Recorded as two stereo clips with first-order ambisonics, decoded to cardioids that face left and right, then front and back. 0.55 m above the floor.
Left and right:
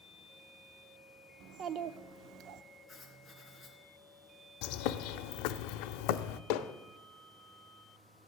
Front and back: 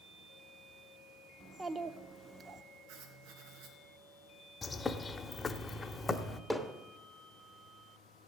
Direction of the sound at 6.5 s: 90° left.